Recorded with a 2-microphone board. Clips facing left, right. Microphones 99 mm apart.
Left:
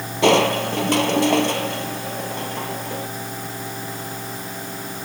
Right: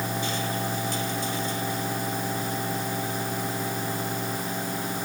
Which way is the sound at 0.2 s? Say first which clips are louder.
Left 13 dB; 75° left (ahead or behind).